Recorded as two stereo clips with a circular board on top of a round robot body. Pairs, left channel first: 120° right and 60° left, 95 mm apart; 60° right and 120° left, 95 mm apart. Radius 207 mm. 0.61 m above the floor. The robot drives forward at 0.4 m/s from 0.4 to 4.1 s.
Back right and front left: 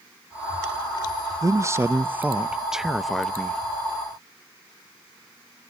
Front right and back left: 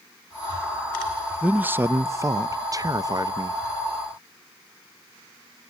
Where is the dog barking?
No dog barking in this recording.